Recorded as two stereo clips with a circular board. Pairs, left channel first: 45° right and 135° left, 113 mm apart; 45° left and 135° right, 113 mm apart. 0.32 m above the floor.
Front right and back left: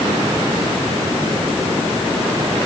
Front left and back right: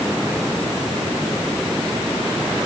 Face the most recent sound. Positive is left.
No sound to turn to.